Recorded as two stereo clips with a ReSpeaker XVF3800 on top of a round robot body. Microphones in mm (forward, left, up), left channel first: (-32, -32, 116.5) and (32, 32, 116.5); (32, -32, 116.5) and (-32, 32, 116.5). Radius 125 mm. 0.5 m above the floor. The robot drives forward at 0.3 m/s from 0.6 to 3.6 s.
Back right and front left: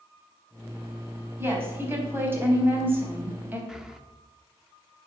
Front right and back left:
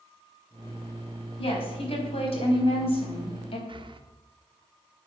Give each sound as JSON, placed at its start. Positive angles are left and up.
{"t": 1.4, "sound": "a woman speaking", "azimuth_deg": -20, "distance_m": 4.5}
{"t": 3.7, "sound": "breathing", "azimuth_deg": 130, "distance_m": 1.3}